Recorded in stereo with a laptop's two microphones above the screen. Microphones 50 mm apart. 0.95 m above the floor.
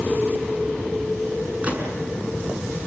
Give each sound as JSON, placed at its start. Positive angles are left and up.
{"t": 1.6, "sound": "a gunshot", "side_deg": -30, "distance_m": 6.5}